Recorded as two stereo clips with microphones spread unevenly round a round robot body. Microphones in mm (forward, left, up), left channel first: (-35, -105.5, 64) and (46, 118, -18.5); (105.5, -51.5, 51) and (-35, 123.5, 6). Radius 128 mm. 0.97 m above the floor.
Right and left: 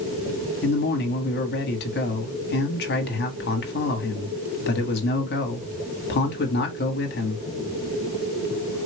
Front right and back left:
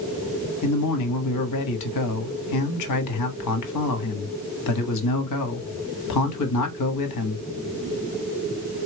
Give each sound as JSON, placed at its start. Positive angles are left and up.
{"t": 0.6, "sound": "a man speaking", "azimuth_deg": -60, "distance_m": 1.5}